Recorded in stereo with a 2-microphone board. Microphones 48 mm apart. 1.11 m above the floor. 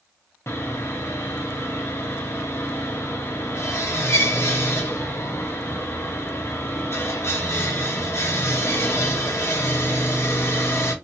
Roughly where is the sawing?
Left.